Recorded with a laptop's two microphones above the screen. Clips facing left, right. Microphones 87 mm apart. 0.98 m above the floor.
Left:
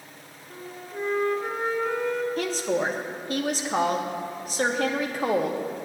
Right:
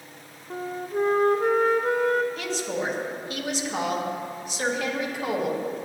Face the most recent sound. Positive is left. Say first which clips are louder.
# left 3 dB
turn(degrees=40)  # may be behind; listen again after turning